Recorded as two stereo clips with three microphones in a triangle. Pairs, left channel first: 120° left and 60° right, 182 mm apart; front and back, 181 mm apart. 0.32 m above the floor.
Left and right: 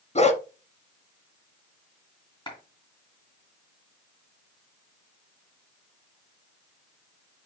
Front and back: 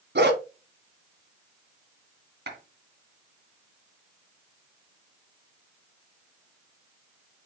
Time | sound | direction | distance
0.1 | a dog barking | 170° left | 1.0 m
2.5 | a clap | straight behind | 3 m